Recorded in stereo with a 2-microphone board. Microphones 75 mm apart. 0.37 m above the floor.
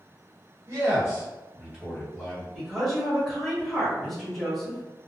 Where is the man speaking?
40° right (ahead or behind), 1.3 m; by 2.5 s 10° left (ahead or behind), 1.5 m.